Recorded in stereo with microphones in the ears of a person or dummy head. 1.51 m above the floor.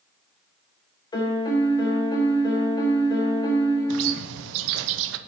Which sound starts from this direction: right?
A bird, at 3.9 s.